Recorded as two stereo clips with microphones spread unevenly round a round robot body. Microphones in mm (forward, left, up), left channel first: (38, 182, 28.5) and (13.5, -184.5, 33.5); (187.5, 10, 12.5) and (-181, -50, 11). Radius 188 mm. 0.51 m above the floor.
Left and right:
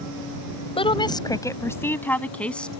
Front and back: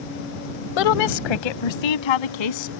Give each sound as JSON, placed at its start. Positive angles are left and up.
{"t": 0.8, "sound": "a woman speaking", "azimuth_deg": 10}